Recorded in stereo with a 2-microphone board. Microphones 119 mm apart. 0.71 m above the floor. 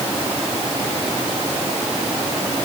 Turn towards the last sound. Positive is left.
No sound to turn to.